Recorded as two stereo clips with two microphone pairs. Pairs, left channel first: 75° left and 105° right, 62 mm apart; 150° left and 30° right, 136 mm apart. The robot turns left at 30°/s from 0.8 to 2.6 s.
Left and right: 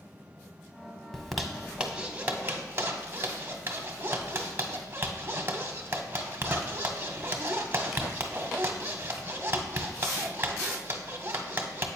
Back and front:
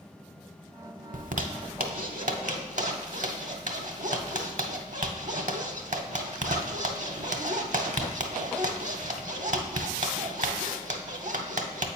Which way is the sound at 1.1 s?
10° right.